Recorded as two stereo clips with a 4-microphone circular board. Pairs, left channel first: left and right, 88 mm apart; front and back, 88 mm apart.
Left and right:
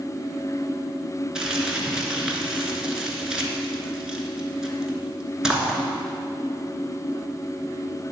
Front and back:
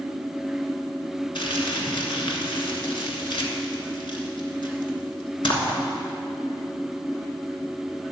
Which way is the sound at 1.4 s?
10° right.